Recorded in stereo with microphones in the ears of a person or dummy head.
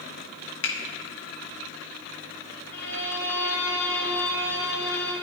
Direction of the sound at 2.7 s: 40° left (ahead or behind).